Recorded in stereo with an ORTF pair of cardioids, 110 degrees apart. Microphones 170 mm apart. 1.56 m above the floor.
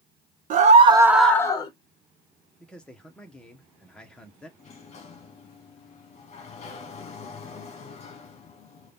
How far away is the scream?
About 1.2 m.